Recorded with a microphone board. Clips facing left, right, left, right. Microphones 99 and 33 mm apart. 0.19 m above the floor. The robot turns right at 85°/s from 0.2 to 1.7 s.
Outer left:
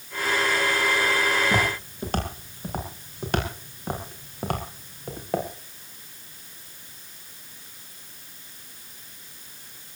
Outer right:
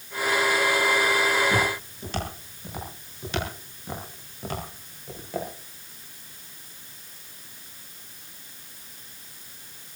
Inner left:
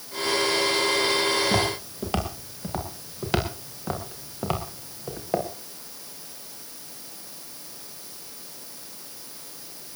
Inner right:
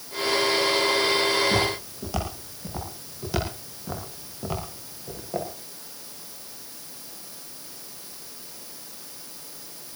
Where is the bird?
No bird in this recording.